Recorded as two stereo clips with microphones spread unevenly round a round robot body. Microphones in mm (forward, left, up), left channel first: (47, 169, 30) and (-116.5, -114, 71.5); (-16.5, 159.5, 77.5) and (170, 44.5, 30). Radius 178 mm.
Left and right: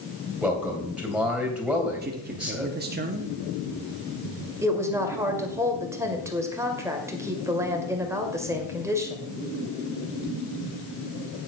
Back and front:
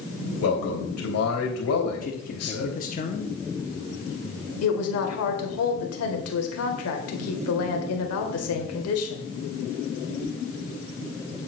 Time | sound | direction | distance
0.4 | a man speaking | 150° left | 3.5 m
2.0 | a man speaking | 170° right | 1.1 m
4.6 | a woman speaking | 155° left | 2.5 m